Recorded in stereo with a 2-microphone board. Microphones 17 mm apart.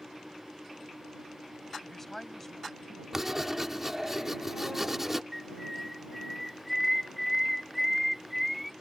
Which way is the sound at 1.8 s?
20° left (ahead or behind).